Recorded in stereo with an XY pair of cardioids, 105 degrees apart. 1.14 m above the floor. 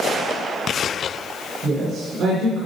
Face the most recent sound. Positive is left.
turn(degrees=-60)